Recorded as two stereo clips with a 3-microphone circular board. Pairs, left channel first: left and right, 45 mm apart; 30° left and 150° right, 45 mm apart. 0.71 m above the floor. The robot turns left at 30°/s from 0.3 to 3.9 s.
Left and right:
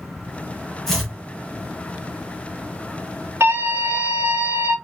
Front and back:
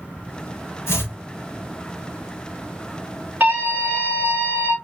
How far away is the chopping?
About 1.8 m.